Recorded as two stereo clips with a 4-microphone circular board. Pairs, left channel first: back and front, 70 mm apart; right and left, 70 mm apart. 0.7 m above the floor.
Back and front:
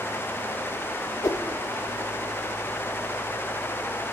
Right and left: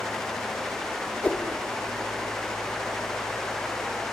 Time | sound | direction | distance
1.2 | a whoosh | 155° right | 0.5 m